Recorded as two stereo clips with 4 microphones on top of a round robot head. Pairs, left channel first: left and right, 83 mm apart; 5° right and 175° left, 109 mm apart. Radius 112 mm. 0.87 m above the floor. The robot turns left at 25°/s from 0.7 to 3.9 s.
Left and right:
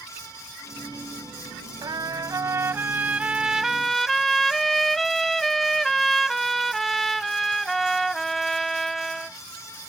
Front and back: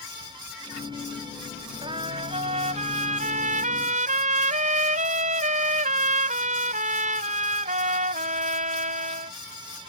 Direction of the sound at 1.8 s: 130° right.